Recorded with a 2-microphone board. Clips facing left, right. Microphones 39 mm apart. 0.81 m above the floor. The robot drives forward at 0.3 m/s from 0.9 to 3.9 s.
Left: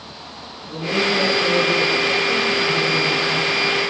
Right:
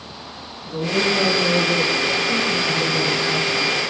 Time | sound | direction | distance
0.6 | a woman speaking | centre (ahead or behind) | 8.5 m